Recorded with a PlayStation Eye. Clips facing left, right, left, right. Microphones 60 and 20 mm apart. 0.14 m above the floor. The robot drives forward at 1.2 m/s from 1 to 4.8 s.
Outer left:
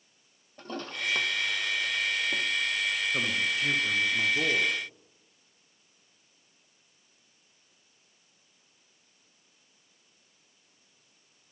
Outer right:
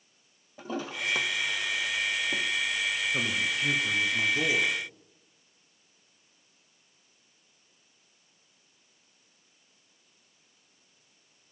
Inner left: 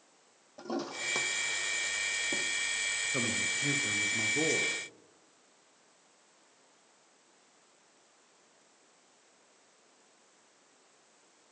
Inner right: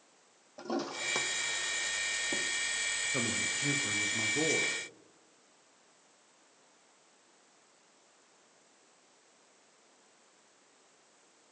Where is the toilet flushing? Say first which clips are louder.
Outer right 2 dB, inner right 1 dB; 5° right (ahead or behind), 1.0 m.